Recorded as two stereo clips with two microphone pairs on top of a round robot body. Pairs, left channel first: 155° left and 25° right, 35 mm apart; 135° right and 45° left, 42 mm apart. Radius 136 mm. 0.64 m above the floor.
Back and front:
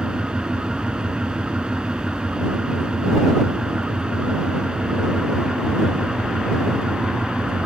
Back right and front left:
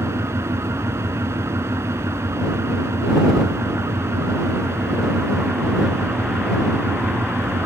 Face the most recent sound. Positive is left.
turn(degrees=40)